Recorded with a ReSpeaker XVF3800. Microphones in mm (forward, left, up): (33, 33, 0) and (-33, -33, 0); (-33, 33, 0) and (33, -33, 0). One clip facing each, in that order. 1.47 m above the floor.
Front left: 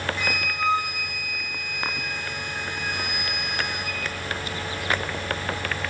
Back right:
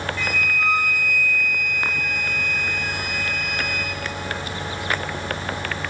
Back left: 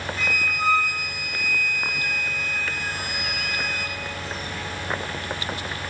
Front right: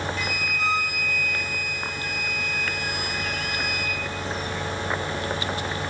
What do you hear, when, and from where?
0.2 s a flute: 105° left, 1.3 m